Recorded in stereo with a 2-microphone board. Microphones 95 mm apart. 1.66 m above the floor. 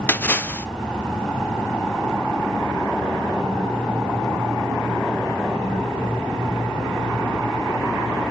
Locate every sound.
0.1 s a splash: 20° left (ahead or behind), 0.6 m